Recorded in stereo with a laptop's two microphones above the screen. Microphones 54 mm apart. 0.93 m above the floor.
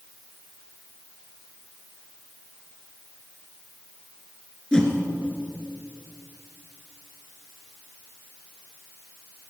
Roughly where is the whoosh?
Centre.